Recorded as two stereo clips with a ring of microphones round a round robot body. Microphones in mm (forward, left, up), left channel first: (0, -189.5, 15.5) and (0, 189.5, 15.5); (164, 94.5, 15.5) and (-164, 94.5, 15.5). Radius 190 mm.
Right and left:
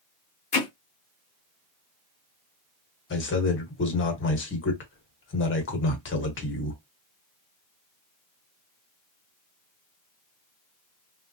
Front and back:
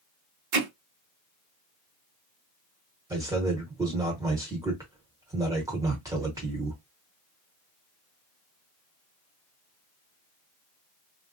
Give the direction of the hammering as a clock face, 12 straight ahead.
5 o'clock.